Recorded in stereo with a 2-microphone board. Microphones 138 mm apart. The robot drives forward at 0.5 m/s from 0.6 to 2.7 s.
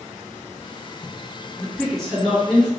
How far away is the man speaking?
About 1.4 m.